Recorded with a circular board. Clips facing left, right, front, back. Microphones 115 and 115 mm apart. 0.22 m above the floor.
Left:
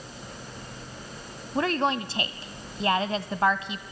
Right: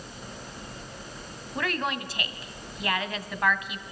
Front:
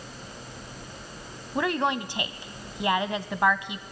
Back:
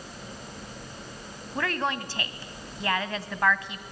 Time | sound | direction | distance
1.6 | a woman speaking | 60° left | 1.3 m